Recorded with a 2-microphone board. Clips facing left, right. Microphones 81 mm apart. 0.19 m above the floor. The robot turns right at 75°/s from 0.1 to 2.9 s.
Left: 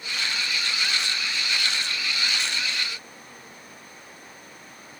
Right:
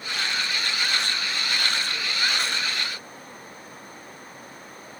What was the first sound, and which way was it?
Only background noise.